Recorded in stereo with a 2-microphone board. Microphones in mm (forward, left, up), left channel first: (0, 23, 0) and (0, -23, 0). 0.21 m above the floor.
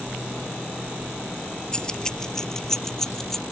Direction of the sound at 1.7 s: 15° left (ahead or behind).